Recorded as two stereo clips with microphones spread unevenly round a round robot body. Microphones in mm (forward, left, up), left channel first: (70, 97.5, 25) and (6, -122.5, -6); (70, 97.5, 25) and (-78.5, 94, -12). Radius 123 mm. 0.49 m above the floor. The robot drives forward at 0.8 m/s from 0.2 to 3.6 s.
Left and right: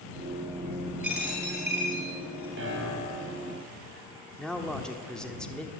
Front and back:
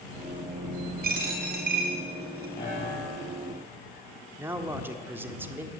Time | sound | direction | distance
1.0 | a dropped coin | 165° left | 5 m
2.6 | a piano | 70° right | 5 m
4.4 | a man speaking | 175° left | 1.4 m